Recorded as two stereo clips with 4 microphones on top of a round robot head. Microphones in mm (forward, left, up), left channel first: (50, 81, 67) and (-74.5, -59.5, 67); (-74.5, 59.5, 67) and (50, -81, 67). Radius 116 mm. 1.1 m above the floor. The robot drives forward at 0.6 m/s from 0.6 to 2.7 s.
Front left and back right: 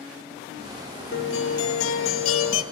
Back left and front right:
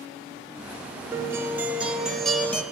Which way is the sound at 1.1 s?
30° left.